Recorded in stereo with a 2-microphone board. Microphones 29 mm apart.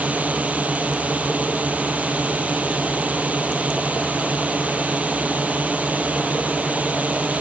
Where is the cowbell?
No cowbell in this recording.